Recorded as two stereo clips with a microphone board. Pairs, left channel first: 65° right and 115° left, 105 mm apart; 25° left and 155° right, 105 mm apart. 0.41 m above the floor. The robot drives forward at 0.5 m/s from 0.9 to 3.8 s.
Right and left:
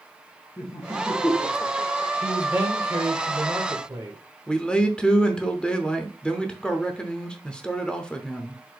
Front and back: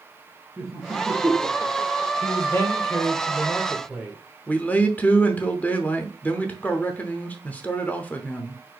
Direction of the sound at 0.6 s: 60° right.